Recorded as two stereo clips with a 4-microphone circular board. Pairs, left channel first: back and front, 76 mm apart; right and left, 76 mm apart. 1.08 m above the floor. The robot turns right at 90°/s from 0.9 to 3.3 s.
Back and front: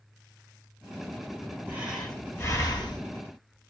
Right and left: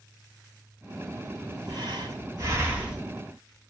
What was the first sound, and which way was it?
Breathing, 65° left.